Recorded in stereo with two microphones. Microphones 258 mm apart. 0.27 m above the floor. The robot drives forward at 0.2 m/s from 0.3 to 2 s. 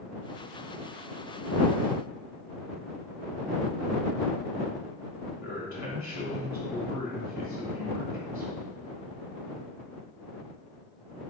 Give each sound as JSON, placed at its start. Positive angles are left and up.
{"t": 5.4, "sound": "a man speaking", "side_deg": 40, "distance_m": 1.5}